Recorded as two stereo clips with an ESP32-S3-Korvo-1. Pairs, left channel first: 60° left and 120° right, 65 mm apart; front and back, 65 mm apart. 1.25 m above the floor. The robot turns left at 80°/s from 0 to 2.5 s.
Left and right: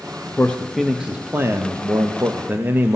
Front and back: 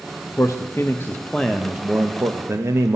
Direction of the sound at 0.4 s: 5° left.